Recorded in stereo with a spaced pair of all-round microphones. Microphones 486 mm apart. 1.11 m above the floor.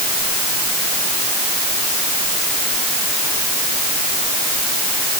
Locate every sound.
Only background noise.